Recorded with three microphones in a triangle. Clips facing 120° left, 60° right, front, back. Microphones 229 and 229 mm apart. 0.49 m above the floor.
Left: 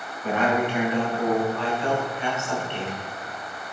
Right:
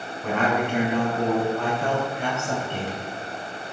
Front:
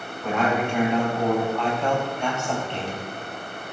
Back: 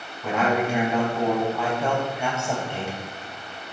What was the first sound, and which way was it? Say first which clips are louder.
A man speaking: left 1 dB, back 1 dB; 95° right.